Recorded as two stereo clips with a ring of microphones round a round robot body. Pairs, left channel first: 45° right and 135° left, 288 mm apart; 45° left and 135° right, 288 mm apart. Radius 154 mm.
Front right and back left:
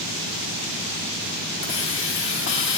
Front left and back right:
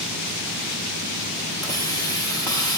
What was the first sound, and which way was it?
A hiss, 30° right.